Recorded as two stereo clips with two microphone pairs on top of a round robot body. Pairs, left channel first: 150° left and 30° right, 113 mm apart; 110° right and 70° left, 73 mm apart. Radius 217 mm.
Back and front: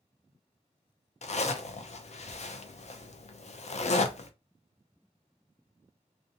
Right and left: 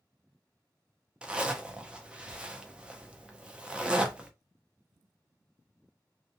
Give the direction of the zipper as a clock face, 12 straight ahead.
7 o'clock.